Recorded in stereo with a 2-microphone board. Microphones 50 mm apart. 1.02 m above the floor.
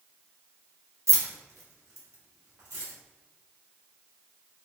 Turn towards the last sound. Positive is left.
turn(degrees=-80)